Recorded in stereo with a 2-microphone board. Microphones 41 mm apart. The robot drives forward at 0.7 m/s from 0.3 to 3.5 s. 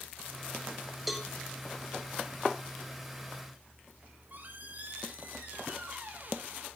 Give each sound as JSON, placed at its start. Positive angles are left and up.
{"t": 1.1, "sound": "a cowbell", "side_deg": 0, "distance_m": 1.3}
{"t": 4.0, "sound": "a squeak", "side_deg": -45, "distance_m": 1.8}